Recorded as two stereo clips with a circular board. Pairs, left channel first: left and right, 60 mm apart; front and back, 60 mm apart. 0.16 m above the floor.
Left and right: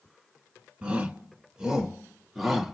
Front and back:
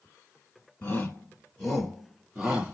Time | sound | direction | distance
0.8 | a shout | 45° right | 1.5 m